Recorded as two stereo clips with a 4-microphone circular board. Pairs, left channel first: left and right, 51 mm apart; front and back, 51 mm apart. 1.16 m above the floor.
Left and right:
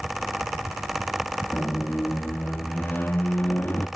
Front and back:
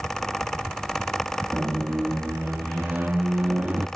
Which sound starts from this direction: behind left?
A squeak, at 1.5 s.